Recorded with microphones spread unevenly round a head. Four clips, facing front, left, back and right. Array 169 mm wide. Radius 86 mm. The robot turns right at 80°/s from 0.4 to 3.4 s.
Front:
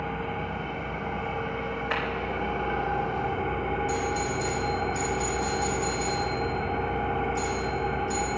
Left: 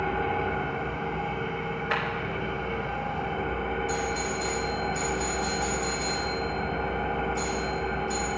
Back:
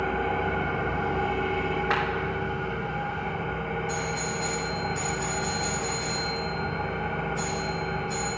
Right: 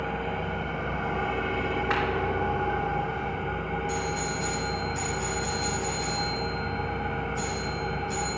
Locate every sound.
0.0 s an engine running: 135° left, 1.5 m; by 8.4 s 15° left, 1.5 m
1.9 s a clap: 170° right, 2.5 m; by 2.0 s 160° right, 2.5 m
3.9 s a doorbell: straight ahead, 4 m